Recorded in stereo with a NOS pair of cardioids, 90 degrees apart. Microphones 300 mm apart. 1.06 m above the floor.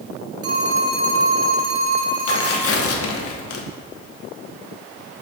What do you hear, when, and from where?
0.4 s a phone ringing: 50° right, 1.7 m
2.3 s tearing paper: 50° left, 1.1 m